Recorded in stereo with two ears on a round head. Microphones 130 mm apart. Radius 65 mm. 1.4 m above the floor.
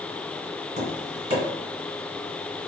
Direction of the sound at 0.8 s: 50° right (ahead or behind).